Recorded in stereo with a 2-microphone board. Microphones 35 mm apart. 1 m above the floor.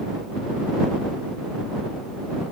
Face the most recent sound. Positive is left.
No sound to turn to.